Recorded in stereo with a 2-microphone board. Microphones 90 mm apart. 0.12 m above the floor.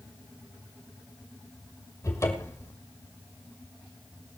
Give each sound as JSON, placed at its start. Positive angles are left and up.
{"t": 2.0, "sound": "a cupboard door", "side_deg": 35, "distance_m": 2.0}